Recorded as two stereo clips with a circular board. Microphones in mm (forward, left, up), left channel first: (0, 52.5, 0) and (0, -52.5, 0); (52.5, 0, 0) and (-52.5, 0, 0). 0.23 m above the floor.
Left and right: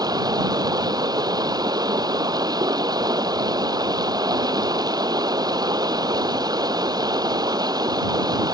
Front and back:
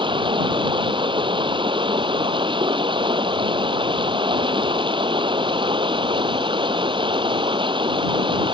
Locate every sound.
0.0 s running water: 140° right